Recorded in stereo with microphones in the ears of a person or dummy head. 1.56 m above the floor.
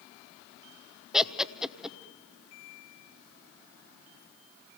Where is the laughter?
5° right (ahead or behind), 0.9 m.